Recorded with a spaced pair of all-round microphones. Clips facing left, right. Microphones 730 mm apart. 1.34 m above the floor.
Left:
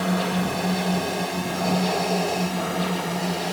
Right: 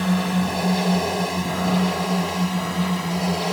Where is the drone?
30° right (ahead or behind); by 3.5 s 35° right (ahead or behind).